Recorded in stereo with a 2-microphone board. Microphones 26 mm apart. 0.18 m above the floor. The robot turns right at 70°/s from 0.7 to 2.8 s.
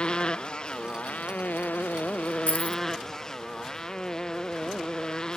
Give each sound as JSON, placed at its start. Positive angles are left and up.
{"t": 0.0, "sound": "a motorcycle", "side_deg": 40}
{"t": 2.5, "sound": "keys jangling", "side_deg": 55}